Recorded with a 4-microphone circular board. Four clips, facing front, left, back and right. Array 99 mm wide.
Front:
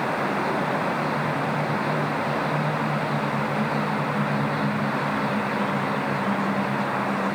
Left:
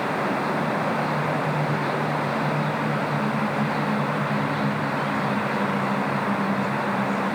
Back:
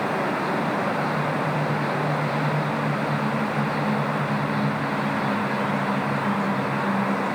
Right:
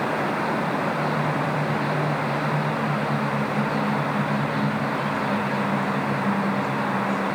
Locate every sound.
Only background noise.